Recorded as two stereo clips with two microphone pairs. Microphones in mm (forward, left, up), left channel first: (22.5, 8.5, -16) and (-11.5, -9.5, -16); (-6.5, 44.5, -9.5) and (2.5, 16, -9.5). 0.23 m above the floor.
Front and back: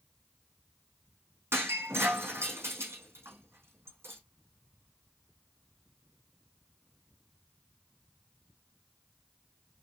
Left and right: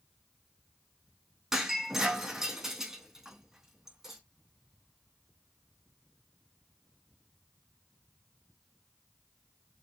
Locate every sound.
1.5 s breaking glass: 145° right, 3 m